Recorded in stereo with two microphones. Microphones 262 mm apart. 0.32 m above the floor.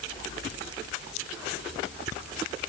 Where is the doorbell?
I don't hear a doorbell.